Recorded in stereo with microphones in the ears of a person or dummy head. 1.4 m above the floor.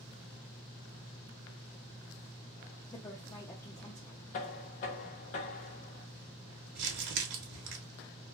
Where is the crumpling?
65° right (ahead or behind), 1.0 m.